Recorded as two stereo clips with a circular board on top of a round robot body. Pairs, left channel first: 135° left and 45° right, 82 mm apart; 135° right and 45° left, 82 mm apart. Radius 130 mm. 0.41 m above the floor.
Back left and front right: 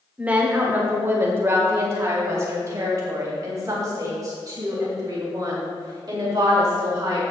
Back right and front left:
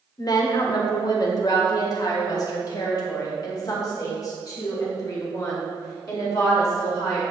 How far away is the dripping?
I don't hear dripping.